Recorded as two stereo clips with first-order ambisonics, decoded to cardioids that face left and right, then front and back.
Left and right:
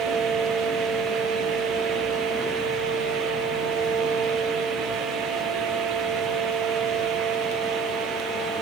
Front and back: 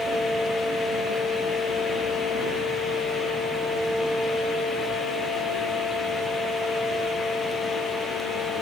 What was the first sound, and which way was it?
Only background noise.